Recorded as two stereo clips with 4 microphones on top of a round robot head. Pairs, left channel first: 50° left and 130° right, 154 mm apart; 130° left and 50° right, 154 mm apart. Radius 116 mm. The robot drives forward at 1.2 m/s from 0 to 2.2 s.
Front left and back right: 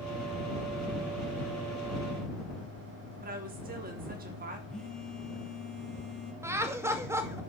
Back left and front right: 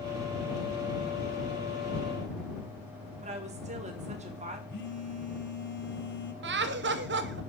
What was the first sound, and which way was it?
A woman speaking, 95° right.